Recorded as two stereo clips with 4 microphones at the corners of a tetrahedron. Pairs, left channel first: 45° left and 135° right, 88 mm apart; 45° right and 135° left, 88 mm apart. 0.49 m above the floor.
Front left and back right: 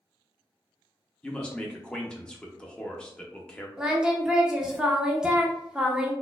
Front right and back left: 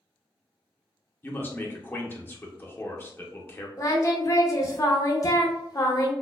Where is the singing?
55° right, 0.7 m.